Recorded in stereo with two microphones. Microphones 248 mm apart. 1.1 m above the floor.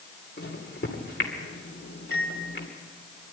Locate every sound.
0.4 s a microwave: 45° left (ahead or behind), 3 m